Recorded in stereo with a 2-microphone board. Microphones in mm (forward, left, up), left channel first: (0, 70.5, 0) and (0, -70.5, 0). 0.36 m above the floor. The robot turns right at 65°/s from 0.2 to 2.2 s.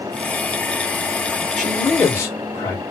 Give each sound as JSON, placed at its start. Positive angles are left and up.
{"t": 1.6, "sound": "a man speaking", "azimuth_deg": 0, "distance_m": 1.2}